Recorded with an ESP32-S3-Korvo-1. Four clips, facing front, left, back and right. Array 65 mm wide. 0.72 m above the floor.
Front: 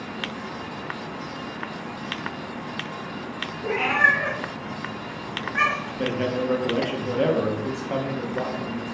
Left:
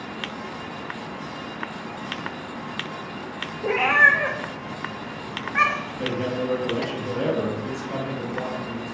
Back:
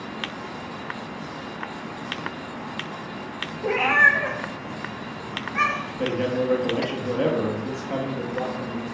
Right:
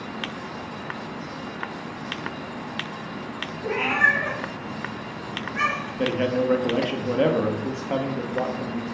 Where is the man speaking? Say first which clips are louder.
Right 5 dB, back 1 dB; 80° right, 0.6 m.